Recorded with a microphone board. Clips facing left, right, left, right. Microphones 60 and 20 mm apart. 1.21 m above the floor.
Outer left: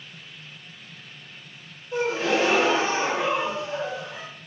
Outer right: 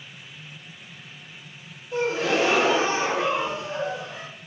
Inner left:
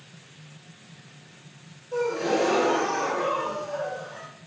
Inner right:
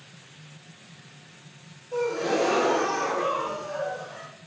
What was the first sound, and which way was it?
A gasp, 5° right (ahead or behind).